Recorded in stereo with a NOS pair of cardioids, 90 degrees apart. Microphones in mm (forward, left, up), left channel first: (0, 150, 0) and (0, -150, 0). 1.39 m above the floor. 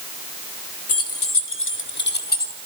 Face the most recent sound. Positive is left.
turn(degrees=30)